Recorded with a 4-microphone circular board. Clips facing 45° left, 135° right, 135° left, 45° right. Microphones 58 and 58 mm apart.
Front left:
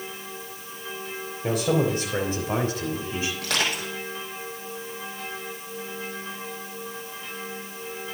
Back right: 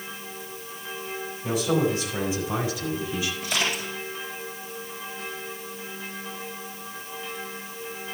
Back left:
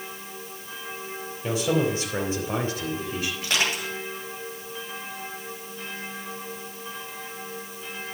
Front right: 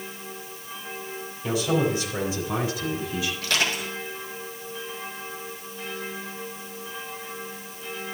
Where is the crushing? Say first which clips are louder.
Front left 1 dB, back left 1 dB; 60° left, 6 m.